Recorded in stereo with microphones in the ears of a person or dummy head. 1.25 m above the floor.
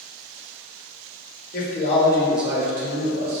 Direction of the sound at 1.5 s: 50° left (ahead or behind).